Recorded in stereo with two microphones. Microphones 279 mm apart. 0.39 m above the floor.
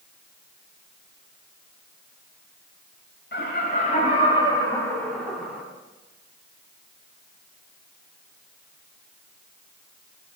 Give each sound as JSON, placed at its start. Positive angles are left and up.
{"t": 3.3, "sound": "laughter", "side_deg": 40, "distance_m": 1.9}